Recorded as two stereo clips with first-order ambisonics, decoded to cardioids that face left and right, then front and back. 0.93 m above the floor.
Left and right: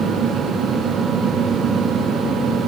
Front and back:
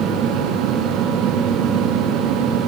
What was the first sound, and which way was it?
Only background noise.